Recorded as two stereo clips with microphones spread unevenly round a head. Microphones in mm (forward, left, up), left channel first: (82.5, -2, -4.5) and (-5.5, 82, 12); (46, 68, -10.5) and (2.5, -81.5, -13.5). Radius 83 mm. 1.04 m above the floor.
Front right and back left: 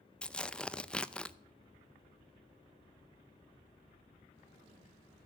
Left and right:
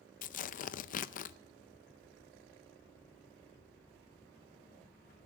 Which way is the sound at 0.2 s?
35° left.